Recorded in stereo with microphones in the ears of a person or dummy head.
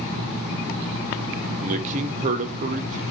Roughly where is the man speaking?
Right.